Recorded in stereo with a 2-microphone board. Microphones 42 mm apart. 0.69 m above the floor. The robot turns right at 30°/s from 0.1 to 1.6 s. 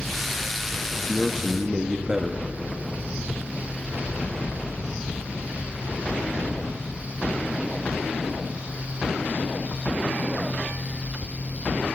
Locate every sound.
1.0 s a man speaking: 5° right (ahead or behind), 0.6 m; by 2.4 s 15° right (ahead or behind), 0.6 m